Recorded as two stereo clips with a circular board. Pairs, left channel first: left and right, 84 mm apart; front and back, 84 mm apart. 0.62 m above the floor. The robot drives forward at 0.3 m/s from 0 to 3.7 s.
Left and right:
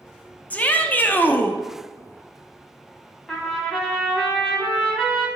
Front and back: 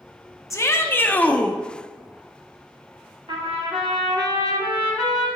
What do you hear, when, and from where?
0.5 s a shout: 30° left, 0.7 m; by 1.6 s 70° left, 0.6 m
3.3 s a trumpet: 175° left, 1.5 m